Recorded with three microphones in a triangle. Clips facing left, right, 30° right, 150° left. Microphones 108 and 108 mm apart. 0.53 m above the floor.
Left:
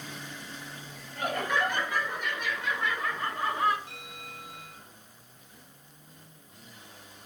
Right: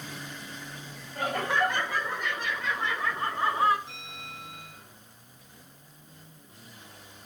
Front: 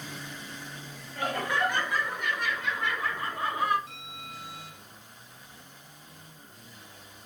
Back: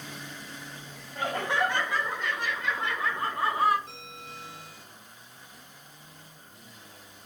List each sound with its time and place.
1.1 s laughter: 145° right, 7 m; by 3.8 s 150° right, 5.5 m
3.9 s a bell: 150° right, 8.5 m